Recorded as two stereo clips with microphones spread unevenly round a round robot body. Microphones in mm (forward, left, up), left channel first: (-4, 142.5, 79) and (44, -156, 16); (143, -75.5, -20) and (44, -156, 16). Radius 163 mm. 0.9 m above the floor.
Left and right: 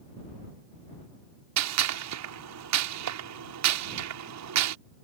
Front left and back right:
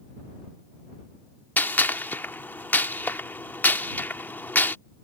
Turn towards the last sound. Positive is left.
turn(degrees=-40)